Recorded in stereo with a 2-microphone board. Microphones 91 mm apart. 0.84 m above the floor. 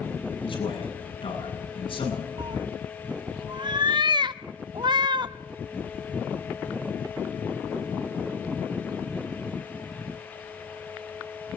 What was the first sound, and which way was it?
A man speaking, 80° left.